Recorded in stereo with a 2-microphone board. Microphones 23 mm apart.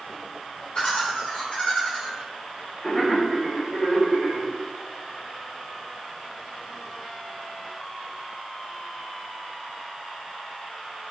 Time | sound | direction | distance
0.8 | laughter | 35° left (ahead or behind) | 1.6 m